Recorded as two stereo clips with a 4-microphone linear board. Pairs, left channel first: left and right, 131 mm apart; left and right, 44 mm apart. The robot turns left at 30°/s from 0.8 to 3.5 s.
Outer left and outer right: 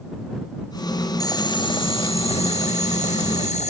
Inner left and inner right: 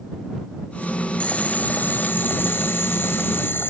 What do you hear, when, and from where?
1.2 s boiling: 145° left; by 3.7 s 80° left